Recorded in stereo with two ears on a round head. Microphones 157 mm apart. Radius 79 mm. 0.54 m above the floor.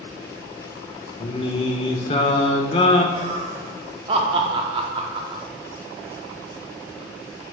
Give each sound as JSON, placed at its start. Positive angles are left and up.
{"t": 1.2, "sound": "singing", "side_deg": 30, "distance_m": 0.6}
{"t": 3.1, "sound": "laughter", "side_deg": -30, "distance_m": 0.7}